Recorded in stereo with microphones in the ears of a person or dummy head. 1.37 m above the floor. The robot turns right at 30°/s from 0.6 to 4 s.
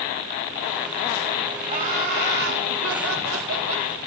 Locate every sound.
1.7 s laughter: 145° right, 2 m; by 3.9 s 80° right, 2 m